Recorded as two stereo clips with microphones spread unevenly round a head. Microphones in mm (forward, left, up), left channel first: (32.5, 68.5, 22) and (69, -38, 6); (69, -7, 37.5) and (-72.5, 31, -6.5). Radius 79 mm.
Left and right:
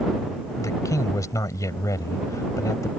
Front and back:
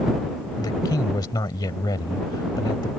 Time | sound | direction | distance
0.6 | a man speaking | 50° left | ?